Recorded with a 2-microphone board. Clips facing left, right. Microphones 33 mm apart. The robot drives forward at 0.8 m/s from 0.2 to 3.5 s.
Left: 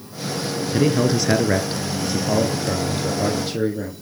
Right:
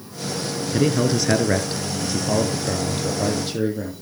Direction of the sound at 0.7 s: Centre (ahead or behind).